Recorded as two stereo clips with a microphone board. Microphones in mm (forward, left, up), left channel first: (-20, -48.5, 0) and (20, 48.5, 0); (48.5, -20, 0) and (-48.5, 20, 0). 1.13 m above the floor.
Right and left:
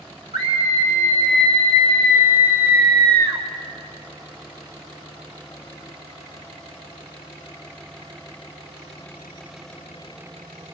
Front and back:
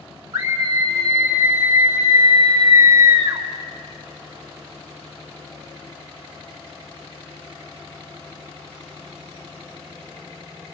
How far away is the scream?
About 1.7 m.